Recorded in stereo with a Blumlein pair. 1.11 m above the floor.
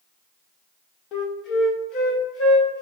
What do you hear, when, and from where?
1.1 s a flute: 35° left, 1.7 m